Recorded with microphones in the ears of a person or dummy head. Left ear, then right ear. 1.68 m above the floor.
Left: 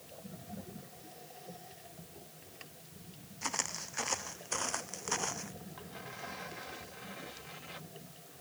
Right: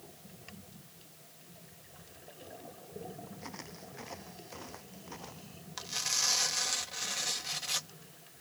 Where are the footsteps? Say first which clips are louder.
Left 14 dB; 40° left (ahead or behind); by 5.5 s 50° left (ahead or behind).